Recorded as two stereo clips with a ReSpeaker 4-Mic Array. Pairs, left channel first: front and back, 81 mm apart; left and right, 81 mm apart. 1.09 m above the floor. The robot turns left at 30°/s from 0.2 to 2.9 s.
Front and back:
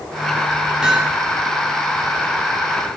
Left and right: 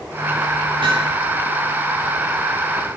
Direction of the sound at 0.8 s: 100° right.